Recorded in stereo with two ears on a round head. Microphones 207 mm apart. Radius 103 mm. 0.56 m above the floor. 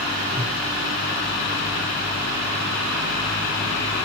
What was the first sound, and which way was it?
A whoosh, 15° right (ahead or behind).